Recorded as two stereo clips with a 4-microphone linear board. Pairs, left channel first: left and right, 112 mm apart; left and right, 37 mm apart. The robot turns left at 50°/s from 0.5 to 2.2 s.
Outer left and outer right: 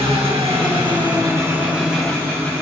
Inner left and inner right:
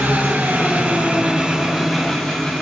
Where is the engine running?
110° right, 7.5 m; by 2.6 s 165° left, 7.5 m.